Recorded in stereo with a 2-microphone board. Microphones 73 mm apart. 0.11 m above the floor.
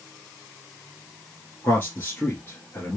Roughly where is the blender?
No blender in this recording.